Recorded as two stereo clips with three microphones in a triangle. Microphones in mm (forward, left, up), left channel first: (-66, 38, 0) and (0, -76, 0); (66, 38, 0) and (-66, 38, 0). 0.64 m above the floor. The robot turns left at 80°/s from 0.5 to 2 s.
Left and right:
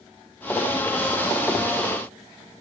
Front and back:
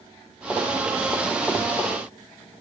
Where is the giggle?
No giggle in this recording.